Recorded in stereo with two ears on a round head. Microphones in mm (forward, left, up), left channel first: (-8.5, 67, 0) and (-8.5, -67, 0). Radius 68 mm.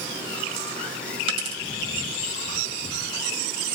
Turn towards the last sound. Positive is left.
turn(degrees=-35)  # may be behind; listen again after turning